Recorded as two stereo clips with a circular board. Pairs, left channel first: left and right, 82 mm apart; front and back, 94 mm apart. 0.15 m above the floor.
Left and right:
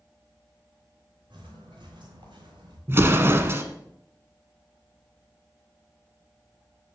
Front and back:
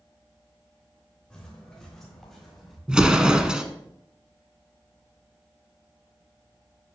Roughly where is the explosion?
Right.